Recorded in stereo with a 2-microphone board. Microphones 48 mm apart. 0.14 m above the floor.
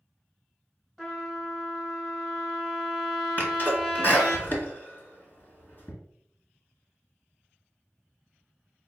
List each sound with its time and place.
1.0 s a trumpet: 5° left (ahead or behind), 1.3 m
3.4 s a sneeze: 40° left (ahead or behind), 1.8 m